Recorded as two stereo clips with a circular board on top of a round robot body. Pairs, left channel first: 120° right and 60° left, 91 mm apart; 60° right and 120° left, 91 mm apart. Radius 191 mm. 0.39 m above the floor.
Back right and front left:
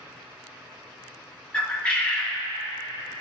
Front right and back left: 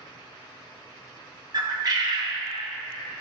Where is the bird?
165° left, 1.0 m.